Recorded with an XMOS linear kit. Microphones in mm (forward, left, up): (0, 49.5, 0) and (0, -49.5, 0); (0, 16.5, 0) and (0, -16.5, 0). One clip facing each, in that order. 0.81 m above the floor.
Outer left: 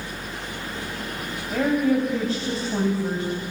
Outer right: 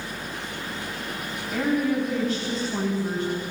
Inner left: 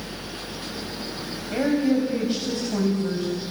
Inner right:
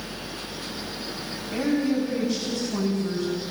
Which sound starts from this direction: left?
A woman speaking, at 1.5 s.